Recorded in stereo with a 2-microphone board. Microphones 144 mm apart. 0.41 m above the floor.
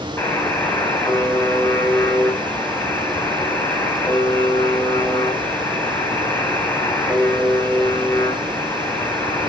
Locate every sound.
0.2 s a buzzer: 15° left (ahead or behind), 3 m